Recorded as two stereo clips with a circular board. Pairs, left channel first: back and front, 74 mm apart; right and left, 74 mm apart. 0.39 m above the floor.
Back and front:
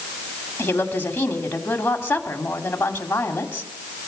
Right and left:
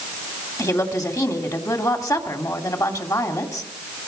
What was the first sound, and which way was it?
A woman speaking, 120° right.